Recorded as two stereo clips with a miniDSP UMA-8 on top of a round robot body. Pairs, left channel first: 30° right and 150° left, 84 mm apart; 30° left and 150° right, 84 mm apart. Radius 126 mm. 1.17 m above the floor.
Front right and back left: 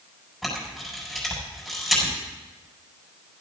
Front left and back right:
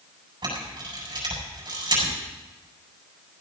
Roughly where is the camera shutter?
Behind right.